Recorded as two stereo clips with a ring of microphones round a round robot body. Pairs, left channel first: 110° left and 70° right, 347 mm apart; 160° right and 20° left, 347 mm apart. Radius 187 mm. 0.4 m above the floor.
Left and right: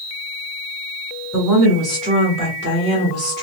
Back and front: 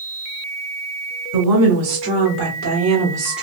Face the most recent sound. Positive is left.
turn(degrees=-65)